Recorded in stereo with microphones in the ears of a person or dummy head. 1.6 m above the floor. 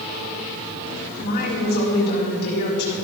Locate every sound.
1.2 s a woman speaking: 55° left (ahead or behind), 3.5 m